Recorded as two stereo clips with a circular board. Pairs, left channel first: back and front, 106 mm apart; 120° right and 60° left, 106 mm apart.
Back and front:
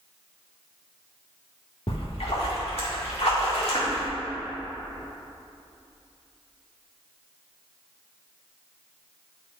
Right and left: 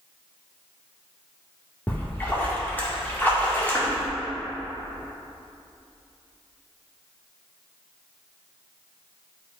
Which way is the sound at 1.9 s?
170° left.